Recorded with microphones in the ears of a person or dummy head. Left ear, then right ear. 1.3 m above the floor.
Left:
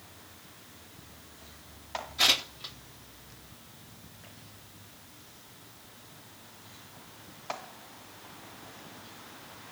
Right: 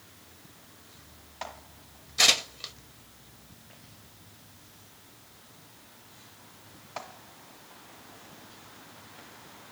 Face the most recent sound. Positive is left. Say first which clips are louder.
# right 3 dB
turn(degrees=-65)  # may be behind; listen again after turning